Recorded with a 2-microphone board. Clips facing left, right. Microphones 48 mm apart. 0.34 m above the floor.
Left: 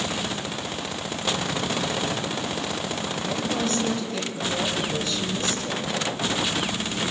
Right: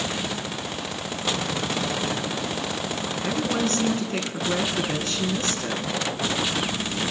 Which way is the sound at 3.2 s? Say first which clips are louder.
Right 2 dB; 45° right (ahead or behind).